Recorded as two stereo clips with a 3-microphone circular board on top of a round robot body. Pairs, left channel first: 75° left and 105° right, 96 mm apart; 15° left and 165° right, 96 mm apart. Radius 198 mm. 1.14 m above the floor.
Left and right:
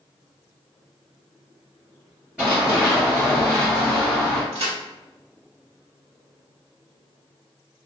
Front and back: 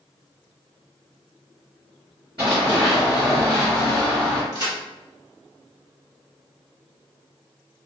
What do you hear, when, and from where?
2.4 s running footsteps: straight behind, 1.2 m; by 4.4 s straight ahead, 1.2 m
4.5 s a crack: 115° right, 1.3 m